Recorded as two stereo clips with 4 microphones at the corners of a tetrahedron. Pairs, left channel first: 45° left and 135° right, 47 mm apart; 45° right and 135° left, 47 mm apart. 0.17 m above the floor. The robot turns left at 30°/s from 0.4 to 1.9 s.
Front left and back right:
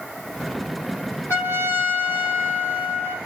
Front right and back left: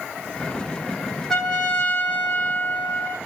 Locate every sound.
1.3 s a trumpet: 40° left, 7.5 m; by 3.2 s 25° left, 7.5 m